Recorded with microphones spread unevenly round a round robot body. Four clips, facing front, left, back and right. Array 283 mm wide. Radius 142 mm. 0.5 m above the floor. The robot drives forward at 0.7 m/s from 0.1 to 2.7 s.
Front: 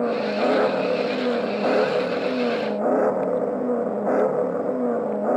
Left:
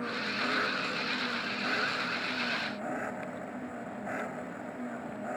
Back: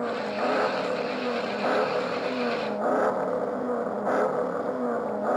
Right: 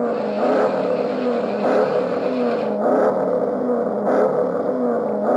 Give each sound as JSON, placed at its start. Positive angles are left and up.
{"t": 0.0, "sound": "an engine running", "azimuth_deg": -55}